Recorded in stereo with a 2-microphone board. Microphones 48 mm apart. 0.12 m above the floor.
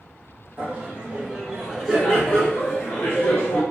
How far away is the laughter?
About 1.5 m.